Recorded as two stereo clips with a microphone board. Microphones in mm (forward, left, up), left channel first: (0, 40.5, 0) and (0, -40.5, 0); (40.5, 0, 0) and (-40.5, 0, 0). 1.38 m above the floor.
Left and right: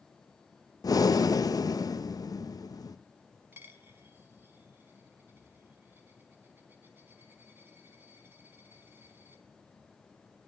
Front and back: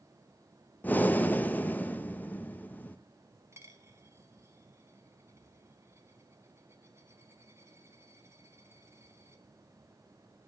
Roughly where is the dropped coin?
Behind right.